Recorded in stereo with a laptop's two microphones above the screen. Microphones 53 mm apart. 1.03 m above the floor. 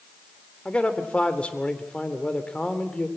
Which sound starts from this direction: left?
A man speaking, at 0.7 s.